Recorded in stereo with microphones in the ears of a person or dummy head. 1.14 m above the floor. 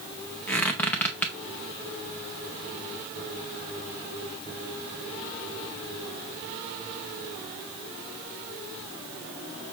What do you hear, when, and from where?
0.5 s a squeak: centre (ahead or behind), 0.6 m